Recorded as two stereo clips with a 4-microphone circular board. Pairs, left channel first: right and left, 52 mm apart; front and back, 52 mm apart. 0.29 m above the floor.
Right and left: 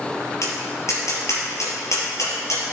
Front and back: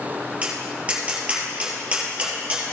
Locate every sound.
0.4 s tapping: 115° right, 3 m